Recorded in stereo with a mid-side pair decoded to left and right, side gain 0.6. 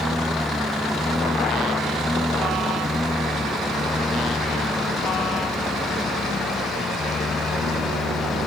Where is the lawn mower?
5° left; by 8.5 s 25° left.